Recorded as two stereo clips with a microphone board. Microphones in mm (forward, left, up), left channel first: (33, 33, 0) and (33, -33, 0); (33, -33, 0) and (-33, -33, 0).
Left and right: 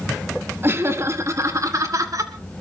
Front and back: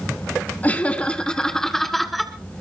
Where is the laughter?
55° right, 1.7 m; by 2.3 s 90° right, 2 m.